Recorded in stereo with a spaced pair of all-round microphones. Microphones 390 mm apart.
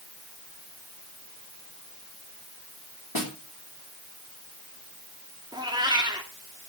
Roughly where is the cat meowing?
Centre.